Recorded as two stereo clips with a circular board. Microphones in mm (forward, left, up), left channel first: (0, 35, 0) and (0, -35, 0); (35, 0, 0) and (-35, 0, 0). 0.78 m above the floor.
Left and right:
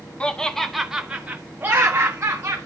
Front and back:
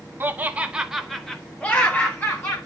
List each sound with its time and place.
0.2 s laughter: 150° left, 1.0 m; by 2.6 s 50° right, 1.6 m